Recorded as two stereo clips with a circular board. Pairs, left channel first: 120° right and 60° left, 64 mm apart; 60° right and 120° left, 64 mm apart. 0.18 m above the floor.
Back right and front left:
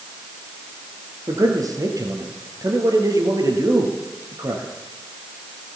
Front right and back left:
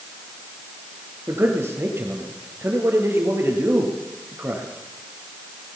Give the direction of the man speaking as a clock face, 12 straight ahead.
10 o'clock.